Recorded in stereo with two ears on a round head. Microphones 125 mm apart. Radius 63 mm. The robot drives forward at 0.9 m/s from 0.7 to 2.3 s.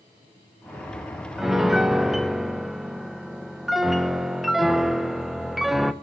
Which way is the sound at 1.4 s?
Centre (ahead or behind).